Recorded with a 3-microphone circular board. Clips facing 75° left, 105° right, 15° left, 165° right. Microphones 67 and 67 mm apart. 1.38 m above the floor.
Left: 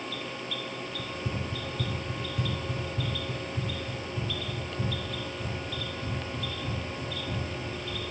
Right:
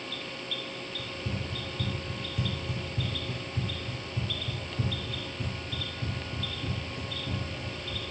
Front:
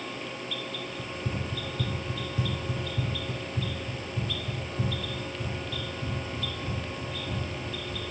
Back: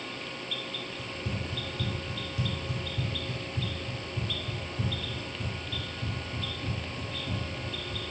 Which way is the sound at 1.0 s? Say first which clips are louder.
Left 2 dB, front 2 dB; 40° left.